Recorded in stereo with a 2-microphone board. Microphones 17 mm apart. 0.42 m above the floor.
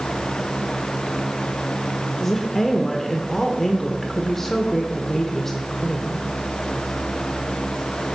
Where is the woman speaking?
15° left (ahead or behind), 0.8 m.